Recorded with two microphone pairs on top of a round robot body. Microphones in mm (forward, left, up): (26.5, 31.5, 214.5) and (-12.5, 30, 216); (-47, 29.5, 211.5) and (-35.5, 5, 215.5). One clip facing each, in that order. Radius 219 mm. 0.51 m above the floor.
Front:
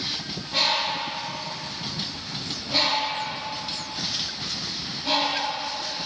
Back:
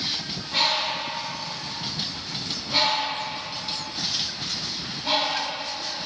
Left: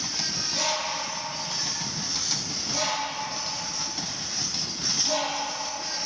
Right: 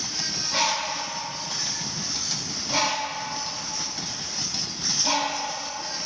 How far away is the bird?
About 1.5 m.